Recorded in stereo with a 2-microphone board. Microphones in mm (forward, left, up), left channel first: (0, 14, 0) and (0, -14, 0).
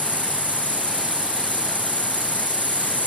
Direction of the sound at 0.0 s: 75° left (ahead or behind).